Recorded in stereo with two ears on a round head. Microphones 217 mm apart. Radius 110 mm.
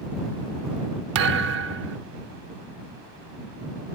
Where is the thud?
55° right (ahead or behind).